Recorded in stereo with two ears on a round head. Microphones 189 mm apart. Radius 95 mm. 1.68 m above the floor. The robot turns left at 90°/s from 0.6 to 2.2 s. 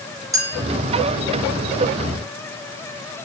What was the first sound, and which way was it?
A clink, 15° right (ahead or behind).